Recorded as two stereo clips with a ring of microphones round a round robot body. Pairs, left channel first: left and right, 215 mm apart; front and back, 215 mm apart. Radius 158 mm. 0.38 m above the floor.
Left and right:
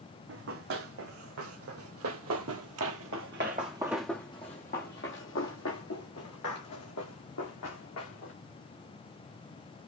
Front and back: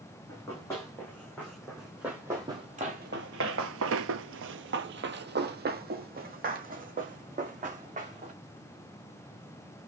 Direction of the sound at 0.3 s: 80° right.